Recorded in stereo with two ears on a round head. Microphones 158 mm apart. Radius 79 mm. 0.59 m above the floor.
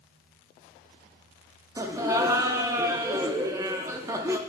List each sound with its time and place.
1.8 s laughter: 15° right (ahead or behind), 0.6 m